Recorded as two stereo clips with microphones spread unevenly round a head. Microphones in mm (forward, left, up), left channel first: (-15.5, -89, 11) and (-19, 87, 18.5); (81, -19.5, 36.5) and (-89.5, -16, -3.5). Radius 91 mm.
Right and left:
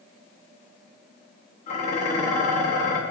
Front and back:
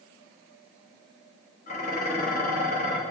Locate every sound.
1.7 s dishes clattering: 35° right, 1.2 m